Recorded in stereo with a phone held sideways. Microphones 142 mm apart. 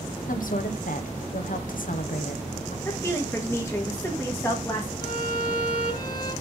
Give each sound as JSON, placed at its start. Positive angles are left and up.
{"t": 0.3, "sound": "a woman speaking", "side_deg": 75, "distance_m": 0.9}
{"t": 2.9, "sound": "a woman speaking", "side_deg": 20, "distance_m": 1.9}
{"t": 5.0, "sound": "a violin", "side_deg": 35, "distance_m": 4.5}